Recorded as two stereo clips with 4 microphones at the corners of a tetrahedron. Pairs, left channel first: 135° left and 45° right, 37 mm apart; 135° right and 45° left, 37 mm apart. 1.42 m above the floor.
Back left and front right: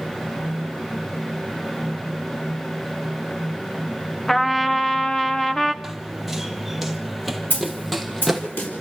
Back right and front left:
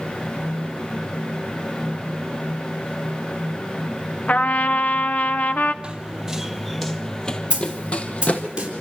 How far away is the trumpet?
About 1.0 m.